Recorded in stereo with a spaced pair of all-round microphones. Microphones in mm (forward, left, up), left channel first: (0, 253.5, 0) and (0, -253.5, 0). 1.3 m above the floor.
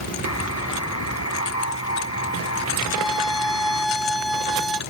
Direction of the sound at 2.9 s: 50° left (ahead or behind).